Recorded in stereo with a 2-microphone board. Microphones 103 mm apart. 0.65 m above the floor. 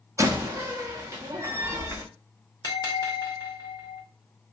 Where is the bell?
40° left (ahead or behind), 0.9 m.